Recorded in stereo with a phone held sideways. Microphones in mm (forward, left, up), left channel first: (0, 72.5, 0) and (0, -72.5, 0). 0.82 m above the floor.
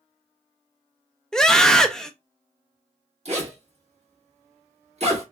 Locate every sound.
1.3 s a scream: 5° left (ahead or behind), 0.5 m
3.2 s a zipper: 45° right (ahead or behind), 1.5 m